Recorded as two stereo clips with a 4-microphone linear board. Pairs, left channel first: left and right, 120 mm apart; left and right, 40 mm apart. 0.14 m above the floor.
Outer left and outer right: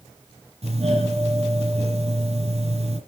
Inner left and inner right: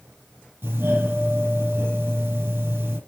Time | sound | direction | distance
0.6 | a doorbell | 60° right (ahead or behind) | 6 m